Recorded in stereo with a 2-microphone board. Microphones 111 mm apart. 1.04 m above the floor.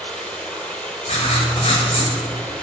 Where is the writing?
80° left, 5 m.